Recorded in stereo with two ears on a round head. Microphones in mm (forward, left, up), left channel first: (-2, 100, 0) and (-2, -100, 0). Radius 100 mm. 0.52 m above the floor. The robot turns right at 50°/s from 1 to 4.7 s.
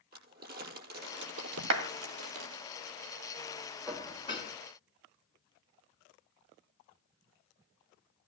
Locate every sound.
0.1 s crumpling: 45° right (ahead or behind), 5.5 m; by 2.6 s 55° right (ahead or behind), 5.5 m
1.7 s a clap: 75° right (ahead or behind), 2.5 m; by 1.9 s 70° right (ahead or behind), 2.5 m
3.9 s dishes clattering: straight ahead, 3.5 m; by 4.5 s 35° left, 3.5 m